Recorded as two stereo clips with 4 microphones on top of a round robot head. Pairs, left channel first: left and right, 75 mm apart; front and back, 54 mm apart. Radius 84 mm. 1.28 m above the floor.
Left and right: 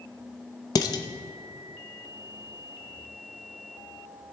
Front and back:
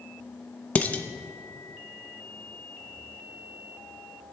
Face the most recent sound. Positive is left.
turn(degrees=60)